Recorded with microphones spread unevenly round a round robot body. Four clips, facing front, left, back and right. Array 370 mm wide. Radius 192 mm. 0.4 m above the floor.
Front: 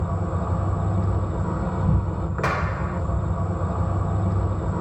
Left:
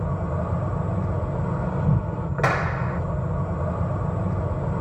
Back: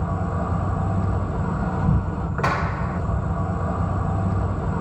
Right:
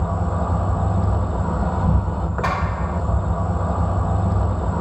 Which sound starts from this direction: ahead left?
A clap, at 2.4 s.